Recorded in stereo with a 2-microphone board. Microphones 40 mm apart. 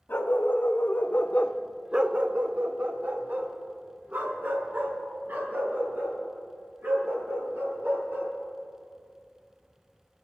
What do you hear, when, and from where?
0.1 s a dog barking: 70° left (ahead or behind), 1.8 m; by 8.3 s 70° right (ahead or behind), 7.5 m